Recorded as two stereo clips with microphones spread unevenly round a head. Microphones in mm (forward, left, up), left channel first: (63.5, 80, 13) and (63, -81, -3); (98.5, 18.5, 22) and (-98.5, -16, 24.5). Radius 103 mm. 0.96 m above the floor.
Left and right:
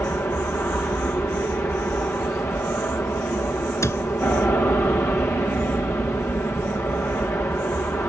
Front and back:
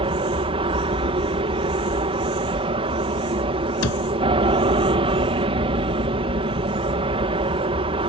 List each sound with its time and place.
0.0 s an aircraft: 165° left
3.8 s a cupboard door: 15° left